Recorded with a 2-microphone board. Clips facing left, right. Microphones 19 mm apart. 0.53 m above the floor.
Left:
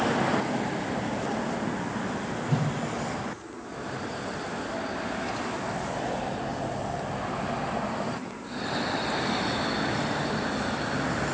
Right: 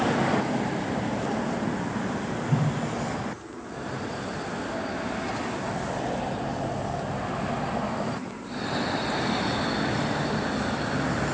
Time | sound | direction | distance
2.5 | a whoosh | 80° left | 3.5 m